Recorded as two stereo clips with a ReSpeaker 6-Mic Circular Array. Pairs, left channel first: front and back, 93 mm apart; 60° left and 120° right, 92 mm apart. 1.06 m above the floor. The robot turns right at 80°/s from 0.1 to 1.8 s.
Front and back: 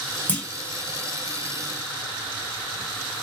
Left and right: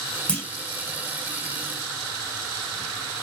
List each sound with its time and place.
0.3 s a clunk: 10° left, 0.9 m; by 0.5 s 25° left, 0.9 m